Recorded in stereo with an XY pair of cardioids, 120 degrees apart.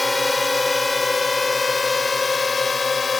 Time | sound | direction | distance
0.0 | a drone | 10° left | ?